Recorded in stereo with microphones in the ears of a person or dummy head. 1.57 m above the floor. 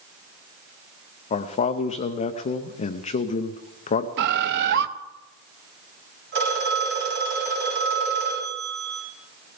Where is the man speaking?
35° left (ahead or behind), 0.6 m.